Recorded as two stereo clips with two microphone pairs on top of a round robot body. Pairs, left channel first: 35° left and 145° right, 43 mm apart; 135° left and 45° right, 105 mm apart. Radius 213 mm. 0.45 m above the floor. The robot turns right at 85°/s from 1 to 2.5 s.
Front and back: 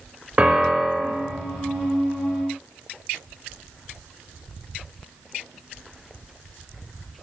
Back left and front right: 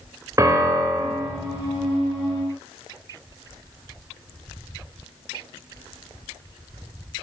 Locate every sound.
0.4 s a piano: 95° right, 1.7 m; by 1.3 s 65° right, 1.7 m